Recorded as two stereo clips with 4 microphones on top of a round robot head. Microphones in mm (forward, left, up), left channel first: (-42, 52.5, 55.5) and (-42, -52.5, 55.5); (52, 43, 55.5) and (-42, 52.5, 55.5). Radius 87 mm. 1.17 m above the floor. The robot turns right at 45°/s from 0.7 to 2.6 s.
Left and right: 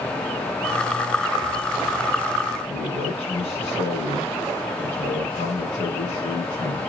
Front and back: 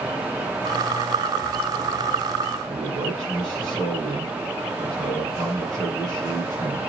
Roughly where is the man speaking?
Left.